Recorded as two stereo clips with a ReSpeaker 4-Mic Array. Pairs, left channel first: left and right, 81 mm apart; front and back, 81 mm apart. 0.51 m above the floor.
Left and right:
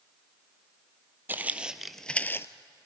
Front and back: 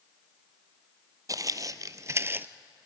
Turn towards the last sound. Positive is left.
turn(degrees=125)